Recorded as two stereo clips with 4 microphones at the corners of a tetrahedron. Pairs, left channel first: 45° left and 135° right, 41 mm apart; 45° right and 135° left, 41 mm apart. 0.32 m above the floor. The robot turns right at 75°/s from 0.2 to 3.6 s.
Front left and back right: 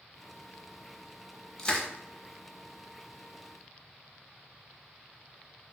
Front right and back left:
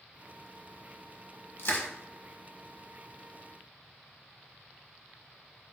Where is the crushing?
30° right, 0.6 m; by 1.9 s 10° right, 0.6 m.